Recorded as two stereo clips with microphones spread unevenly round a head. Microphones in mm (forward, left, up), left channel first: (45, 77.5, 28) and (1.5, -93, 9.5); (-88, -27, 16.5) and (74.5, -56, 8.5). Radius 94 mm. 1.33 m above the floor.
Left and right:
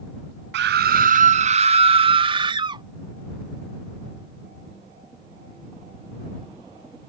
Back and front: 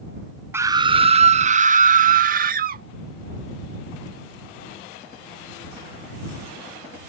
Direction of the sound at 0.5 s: 85° right.